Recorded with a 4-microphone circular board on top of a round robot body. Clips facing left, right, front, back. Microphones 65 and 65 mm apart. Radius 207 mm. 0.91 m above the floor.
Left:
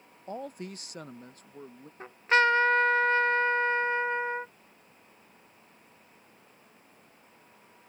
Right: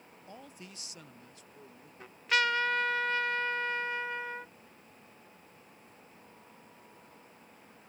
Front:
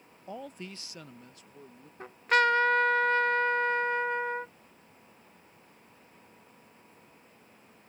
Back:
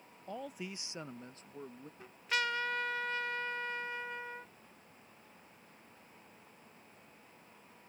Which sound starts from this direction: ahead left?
A trumpet, at 2.0 s.